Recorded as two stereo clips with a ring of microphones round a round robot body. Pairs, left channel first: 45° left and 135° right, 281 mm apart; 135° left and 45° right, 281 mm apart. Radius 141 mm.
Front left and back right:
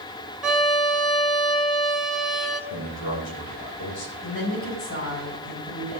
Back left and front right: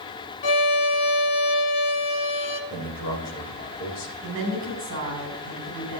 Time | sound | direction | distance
0.4 | a violin | 135° left | 1.5 m
2.7 | a man speaking | 75° left | 3.5 m
4.2 | a woman speaking | straight ahead | 6 m